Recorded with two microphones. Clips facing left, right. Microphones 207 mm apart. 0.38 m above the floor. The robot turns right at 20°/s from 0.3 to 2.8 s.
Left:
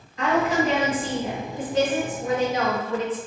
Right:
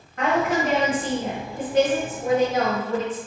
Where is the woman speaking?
85° right, 1.5 m; by 3.2 s 35° right, 1.5 m.